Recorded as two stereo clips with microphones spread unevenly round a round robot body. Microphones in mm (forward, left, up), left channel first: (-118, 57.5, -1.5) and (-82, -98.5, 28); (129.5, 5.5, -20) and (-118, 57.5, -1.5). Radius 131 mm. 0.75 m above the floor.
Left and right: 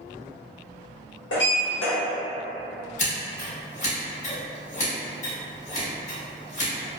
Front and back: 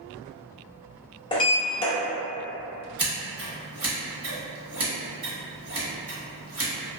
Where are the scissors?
100° left, 1.3 m.